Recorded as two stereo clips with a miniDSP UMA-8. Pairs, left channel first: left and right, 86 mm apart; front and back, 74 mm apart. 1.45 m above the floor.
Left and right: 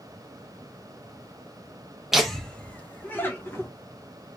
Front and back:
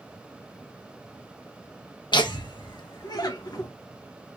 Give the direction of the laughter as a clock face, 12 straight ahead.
12 o'clock.